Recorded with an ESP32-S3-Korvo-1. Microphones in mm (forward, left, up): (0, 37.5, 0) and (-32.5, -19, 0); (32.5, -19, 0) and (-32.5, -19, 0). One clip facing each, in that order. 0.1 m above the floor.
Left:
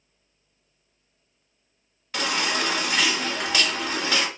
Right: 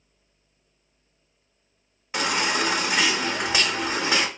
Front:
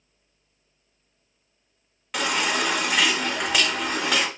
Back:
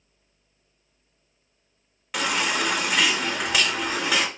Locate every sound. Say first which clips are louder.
2.1 s a baby crying: right 2 dB, even; 95° right, 0.7 m